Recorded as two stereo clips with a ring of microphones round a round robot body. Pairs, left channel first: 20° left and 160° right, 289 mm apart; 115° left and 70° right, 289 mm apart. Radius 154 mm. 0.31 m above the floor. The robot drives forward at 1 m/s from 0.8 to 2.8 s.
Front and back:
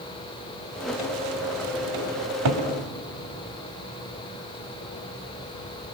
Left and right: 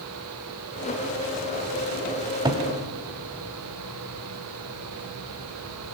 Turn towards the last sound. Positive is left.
turn(degrees=-150)